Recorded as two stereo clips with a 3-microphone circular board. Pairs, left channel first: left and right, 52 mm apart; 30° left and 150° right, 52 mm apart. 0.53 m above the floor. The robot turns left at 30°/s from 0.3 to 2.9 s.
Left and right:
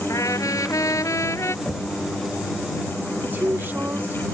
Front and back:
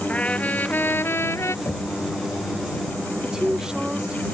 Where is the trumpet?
95° left; by 1.6 s 60° left.